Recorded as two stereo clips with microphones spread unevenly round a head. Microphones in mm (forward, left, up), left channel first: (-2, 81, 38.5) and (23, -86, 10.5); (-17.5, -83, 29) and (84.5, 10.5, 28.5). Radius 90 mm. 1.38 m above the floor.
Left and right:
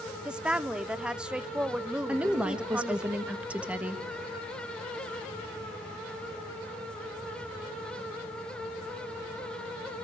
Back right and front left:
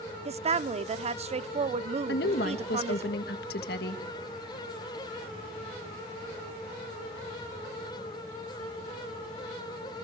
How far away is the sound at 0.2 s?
About 0.7 m.